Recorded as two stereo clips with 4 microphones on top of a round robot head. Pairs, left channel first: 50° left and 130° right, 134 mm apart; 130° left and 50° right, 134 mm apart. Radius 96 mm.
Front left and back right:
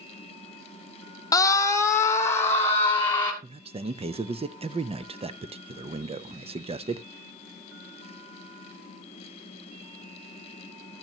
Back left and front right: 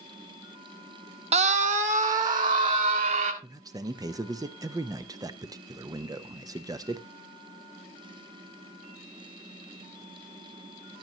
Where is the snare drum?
No snare drum in this recording.